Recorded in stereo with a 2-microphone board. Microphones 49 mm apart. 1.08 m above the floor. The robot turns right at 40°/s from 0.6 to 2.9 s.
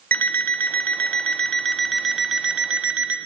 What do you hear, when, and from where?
0.1 s an alarm clock: 125° left, 0.7 m; by 3.2 s 145° right, 0.7 m